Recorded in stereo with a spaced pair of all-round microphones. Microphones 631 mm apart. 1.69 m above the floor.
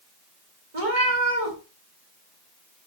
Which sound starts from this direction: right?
A cat meowing, at 0.7 s.